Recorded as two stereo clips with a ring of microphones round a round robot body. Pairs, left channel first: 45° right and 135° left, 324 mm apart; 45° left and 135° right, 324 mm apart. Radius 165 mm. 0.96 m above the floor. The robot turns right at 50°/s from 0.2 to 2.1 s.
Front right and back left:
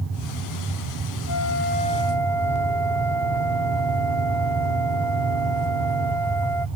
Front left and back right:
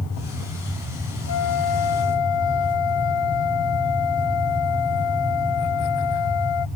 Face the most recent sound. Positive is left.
turn(degrees=40)